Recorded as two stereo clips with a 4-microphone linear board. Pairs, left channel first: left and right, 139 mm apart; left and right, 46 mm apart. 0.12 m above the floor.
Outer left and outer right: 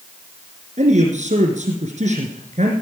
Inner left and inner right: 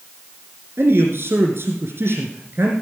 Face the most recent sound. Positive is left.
turn(degrees=-55)  # may be behind; listen again after turning